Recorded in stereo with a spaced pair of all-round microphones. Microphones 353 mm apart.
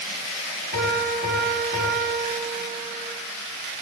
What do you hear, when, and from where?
0.7 s a piano: 30° right (ahead or behind), 9 m